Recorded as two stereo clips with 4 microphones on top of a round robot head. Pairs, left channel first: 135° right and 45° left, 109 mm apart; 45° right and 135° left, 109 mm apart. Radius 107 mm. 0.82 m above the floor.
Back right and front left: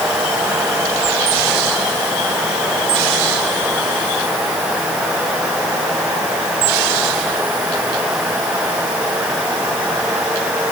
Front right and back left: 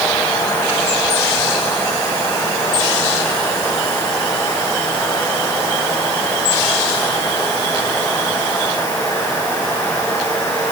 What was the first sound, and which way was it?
Only background noise.